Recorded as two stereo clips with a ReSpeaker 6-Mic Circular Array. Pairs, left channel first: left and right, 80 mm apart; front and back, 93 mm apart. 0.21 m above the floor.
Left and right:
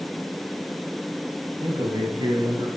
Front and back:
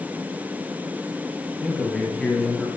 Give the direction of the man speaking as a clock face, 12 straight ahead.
3 o'clock.